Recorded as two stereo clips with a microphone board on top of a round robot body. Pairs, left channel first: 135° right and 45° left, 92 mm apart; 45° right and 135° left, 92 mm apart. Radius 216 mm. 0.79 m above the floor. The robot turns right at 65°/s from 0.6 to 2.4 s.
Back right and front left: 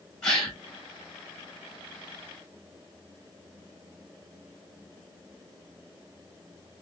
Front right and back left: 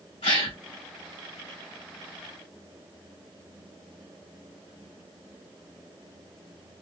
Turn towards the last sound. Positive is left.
turn(degrees=65)